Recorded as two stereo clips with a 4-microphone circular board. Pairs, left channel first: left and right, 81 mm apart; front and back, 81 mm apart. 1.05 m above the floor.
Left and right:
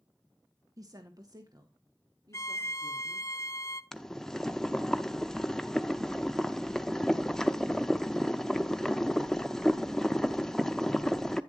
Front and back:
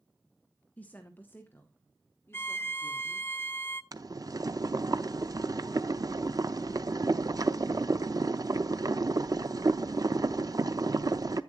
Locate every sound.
0.8 s a woman speaking: 65° right, 1.2 m; by 3.3 s 60° right, 3 m
2.3 s a violin: 55° left, 0.8 m
3.9 s boiling: 170° left, 0.7 m